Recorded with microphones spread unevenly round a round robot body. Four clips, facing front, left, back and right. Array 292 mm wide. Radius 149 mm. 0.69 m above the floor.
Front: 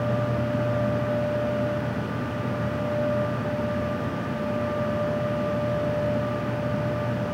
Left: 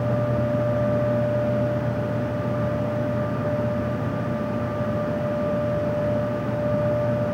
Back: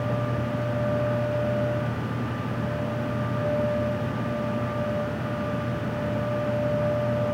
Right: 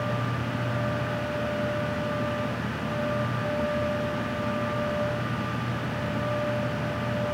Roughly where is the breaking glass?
I don't hear breaking glass.